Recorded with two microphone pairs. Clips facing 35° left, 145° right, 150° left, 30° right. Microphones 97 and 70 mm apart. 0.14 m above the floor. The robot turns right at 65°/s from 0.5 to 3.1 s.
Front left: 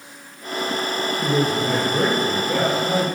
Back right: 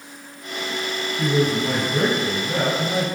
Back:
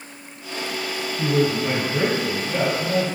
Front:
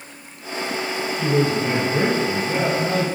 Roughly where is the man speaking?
Behind.